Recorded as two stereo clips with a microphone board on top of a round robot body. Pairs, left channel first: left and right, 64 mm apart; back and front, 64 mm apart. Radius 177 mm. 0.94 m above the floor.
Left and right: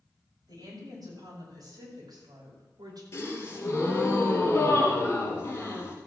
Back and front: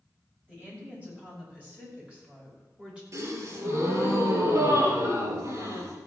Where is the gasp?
40° left, 4.5 m.